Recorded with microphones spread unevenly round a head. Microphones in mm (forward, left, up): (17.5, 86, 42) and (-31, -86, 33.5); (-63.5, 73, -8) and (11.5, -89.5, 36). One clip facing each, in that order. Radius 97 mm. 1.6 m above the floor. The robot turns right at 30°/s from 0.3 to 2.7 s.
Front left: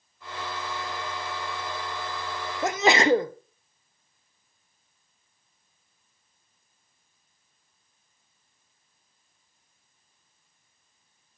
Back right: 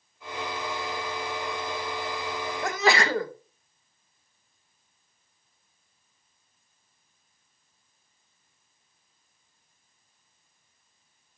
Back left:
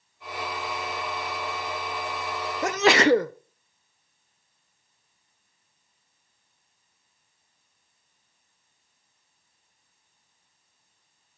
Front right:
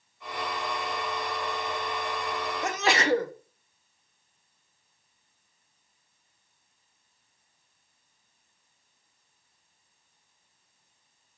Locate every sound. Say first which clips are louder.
2.6 s a sneeze: front left 4 dB, back left 7 dB; 140° left, 0.6 m; by 3.3 s 145° left, 0.6 m